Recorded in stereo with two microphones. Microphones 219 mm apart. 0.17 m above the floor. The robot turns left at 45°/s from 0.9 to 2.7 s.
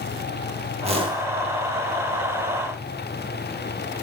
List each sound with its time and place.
0.8 s a whoosh: 30° right (ahead or behind), 4 m; by 1.3 s 15° right (ahead or behind), 4 m